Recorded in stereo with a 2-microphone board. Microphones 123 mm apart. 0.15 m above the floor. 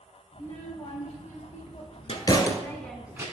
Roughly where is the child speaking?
Left.